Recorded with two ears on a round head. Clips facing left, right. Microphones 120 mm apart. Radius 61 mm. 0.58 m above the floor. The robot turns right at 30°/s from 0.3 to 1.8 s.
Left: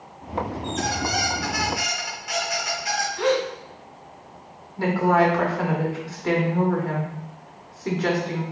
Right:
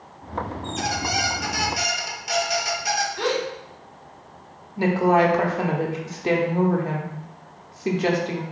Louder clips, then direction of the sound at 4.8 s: Right 1 dB; 20° right (ahead or behind).